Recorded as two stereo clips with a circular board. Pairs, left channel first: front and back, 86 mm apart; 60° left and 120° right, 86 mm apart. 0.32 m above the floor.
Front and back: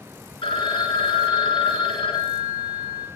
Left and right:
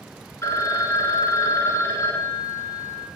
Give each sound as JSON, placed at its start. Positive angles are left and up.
{"t": 0.4, "sound": "a phone ringing", "azimuth_deg": 5, "distance_m": 2.5}